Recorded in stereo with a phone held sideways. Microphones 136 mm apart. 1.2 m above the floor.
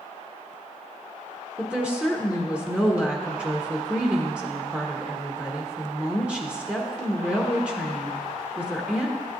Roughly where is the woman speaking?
Centre.